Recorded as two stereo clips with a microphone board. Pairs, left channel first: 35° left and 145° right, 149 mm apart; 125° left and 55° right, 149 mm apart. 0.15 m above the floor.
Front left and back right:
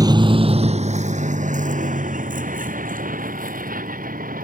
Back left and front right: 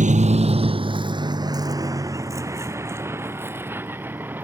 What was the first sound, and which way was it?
A vehicle, 85° right.